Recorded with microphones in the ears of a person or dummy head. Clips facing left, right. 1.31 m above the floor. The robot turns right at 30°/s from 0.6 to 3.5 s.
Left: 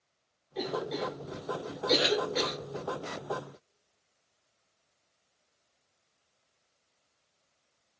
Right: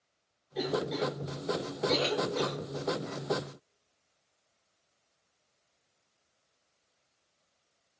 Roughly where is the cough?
Centre.